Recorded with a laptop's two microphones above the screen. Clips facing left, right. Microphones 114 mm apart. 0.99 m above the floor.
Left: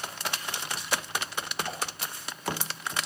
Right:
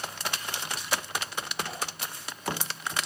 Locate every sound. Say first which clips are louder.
1.6 s a whoosh: left 2 dB; 45° left (ahead or behind), 6.5 m